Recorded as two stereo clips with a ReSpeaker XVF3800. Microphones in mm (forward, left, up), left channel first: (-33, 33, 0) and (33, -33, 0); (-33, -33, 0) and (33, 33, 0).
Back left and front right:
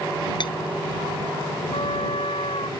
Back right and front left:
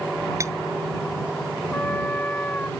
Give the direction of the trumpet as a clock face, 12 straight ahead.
7 o'clock.